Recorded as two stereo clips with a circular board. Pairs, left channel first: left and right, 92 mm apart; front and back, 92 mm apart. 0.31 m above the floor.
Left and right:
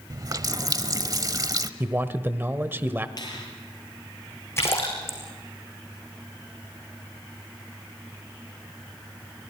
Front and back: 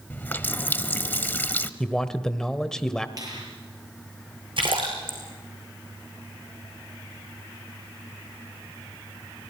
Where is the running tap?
65° right, 0.9 m.